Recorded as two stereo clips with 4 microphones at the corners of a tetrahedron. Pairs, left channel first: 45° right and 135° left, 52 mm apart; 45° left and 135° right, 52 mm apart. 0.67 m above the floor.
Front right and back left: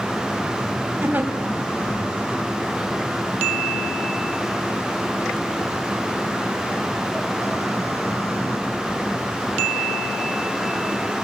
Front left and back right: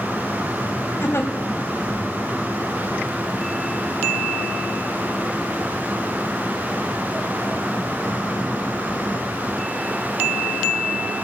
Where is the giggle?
80° left, 3.5 m.